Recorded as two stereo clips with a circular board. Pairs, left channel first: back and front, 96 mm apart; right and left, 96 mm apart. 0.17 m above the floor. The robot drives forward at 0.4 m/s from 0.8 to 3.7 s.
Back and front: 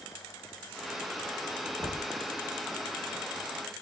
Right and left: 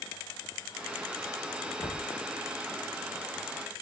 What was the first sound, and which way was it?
Knocking, 50° right.